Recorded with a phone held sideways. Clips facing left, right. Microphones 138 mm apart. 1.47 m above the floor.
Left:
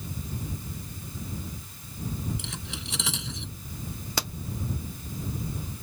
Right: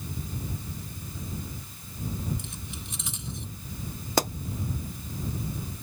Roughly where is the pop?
Right.